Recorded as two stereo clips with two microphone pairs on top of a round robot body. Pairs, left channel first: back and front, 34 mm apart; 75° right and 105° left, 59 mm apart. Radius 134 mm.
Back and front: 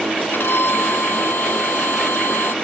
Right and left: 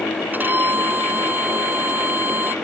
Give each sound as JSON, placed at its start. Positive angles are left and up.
{"t": 0.3, "sound": "a violin", "azimuth_deg": 160}